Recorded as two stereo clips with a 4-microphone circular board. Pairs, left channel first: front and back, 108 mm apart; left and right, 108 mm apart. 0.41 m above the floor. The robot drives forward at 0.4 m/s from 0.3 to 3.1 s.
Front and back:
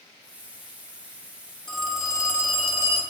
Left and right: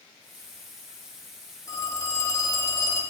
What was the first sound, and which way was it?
A phone ringing, 75° left.